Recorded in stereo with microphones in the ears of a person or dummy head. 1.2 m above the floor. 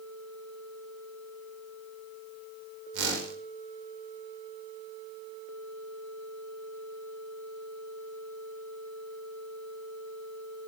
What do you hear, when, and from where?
2.9 s a whoosh: 70° right (ahead or behind), 5.5 m